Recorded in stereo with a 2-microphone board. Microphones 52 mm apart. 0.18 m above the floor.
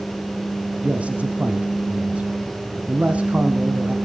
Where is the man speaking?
25° right (ahead or behind), 1.2 m.